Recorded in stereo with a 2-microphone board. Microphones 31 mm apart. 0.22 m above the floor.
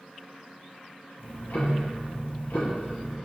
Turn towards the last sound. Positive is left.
turn(degrees=70)  # may be behind; listen again after turning